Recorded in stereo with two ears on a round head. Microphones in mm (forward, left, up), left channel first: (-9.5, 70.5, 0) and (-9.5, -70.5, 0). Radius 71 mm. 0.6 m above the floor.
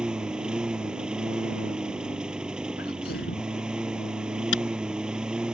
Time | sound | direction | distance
0.0 | a lawn mower | 5° right (ahead or behind) | ?
2.8 | a sneeze | 60° left (ahead or behind) | ?
4.5 | a camera shutter | 85° left | ?